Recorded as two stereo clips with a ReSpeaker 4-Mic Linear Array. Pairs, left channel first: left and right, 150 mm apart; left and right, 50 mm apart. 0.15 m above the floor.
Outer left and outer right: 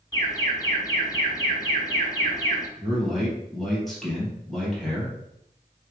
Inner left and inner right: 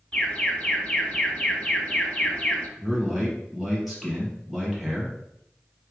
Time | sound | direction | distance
0.1 | an alarm | 20° left (ahead or behind) | 2 m
2.8 | a man speaking | centre (ahead or behind) | 3.5 m